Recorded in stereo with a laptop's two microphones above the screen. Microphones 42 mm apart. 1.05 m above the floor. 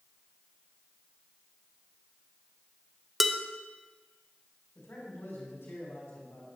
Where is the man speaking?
85° left, 3 m.